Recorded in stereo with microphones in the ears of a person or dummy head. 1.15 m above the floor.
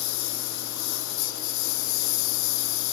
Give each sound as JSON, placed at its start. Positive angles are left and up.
{"t": 0.0, "sound": "a lawn mower", "side_deg": 70}